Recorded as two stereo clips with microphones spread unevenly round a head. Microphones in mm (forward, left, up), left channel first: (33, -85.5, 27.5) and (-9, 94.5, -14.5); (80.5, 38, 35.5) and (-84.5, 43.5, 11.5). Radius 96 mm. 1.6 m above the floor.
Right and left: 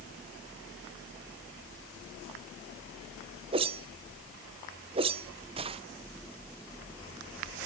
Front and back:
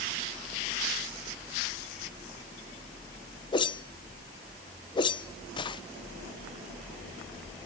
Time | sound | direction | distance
3.5 | a whoosh | 40° left | 0.6 m